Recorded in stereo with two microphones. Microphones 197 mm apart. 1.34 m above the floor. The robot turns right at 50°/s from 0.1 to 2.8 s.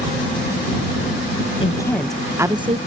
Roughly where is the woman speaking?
Behind left.